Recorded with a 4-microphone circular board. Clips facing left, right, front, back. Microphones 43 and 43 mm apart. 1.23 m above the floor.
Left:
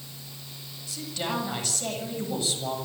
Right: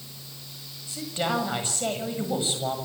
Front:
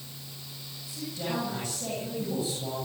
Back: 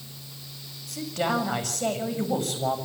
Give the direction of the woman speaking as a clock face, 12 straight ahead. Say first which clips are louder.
Right 4 dB, back 7 dB; 5 o'clock.